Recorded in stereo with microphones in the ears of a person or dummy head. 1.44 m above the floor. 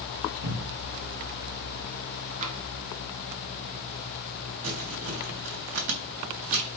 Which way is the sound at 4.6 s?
70° right (ahead or behind).